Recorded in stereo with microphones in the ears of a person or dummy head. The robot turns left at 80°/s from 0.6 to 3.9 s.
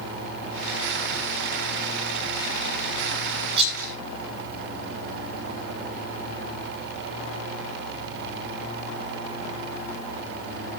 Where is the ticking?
I don't hear ticking.